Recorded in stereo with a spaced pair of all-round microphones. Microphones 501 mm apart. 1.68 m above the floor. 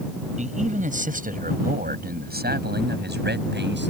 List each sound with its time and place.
0.4 s a man speaking: 15° right (ahead or behind); by 3.9 s 20° right (ahead or behind)